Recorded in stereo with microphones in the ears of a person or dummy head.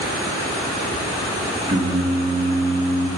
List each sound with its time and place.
1.7 s singing: 20° right (ahead or behind), 2.5 m